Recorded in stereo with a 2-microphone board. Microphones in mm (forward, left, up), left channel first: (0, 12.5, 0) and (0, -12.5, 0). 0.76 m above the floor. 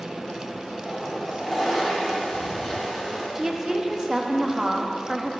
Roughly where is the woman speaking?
Centre.